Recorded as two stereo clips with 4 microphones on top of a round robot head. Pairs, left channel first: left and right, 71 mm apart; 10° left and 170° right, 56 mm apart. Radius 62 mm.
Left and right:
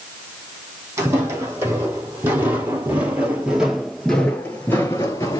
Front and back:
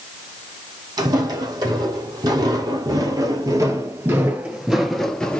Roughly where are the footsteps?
Behind right.